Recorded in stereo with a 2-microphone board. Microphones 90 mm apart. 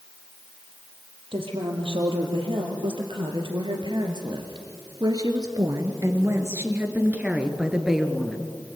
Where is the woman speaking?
75° right (ahead or behind), 4.5 m; by 8.5 s 5° left (ahead or behind), 2.5 m.